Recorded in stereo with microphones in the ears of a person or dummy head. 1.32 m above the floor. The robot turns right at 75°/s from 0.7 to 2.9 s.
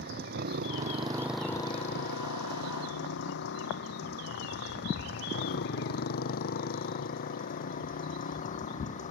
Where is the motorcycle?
55° right (ahead or behind); by 9.1 s 40° left (ahead or behind).